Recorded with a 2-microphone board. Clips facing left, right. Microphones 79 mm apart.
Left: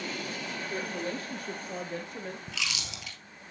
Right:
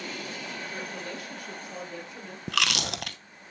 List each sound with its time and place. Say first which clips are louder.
0.7 s a woman speaking: left 3 dB; 30° left (ahead or behind), 3.5 m; by 2.4 s 55° left (ahead or behind), 2.5 m
2.5 s chewing: right 8 dB; 65° right (ahead or behind), 0.6 m